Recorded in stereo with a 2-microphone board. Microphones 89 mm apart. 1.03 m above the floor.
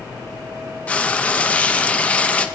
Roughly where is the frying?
Centre.